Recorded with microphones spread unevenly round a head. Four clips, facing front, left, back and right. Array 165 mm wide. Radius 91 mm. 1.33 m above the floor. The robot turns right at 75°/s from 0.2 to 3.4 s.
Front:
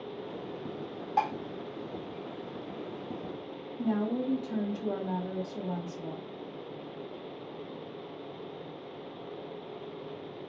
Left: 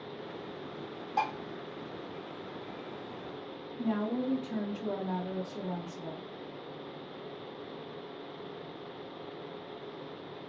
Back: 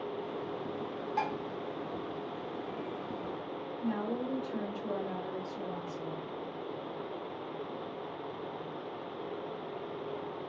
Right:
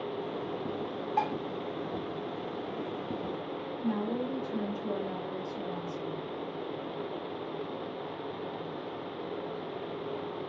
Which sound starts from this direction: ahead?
Dishes clattering, at 1.2 s.